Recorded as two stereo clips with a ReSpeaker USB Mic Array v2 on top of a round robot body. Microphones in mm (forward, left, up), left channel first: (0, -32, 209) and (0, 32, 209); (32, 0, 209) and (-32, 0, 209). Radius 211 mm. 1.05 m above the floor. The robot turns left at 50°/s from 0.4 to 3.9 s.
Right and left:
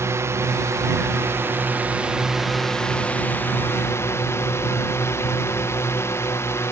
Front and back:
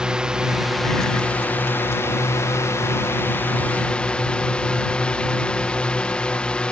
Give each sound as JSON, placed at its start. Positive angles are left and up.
{"t": 0.0, "sound": "a drone", "azimuth_deg": 105}